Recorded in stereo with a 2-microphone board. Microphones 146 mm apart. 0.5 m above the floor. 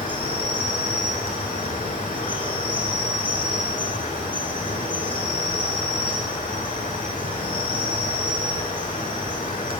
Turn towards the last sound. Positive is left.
turn(degrees=70)  # may be behind; listen again after turning